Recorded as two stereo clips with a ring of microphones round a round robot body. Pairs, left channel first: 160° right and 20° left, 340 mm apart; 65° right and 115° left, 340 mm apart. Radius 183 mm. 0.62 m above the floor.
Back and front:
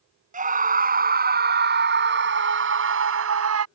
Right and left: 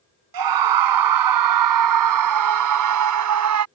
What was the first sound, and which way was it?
A scream, 90° left.